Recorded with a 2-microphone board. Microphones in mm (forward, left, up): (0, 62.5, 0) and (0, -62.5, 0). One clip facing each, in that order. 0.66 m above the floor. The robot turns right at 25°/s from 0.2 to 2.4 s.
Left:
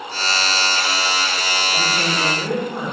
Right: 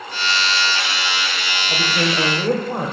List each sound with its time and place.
1.7 s a woman speaking: 35° right (ahead or behind), 1.4 m; by 2.9 s 50° right (ahead or behind), 1.4 m